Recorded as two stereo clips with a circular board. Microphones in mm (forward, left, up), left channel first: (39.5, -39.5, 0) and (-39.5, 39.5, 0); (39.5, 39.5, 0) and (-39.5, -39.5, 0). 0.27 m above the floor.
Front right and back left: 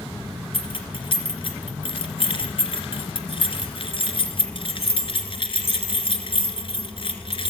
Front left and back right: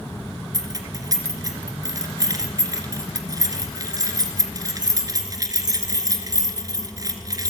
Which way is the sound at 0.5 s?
80° right.